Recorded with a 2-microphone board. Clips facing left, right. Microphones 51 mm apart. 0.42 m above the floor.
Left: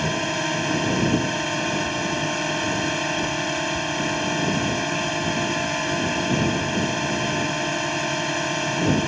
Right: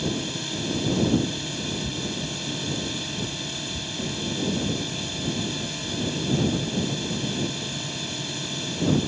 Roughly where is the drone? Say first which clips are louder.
Left 5 dB; left.